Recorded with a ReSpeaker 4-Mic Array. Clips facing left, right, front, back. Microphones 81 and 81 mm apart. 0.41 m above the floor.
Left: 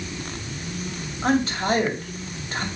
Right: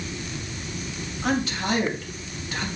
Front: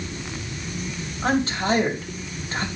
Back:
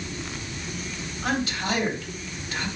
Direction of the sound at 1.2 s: 45° left.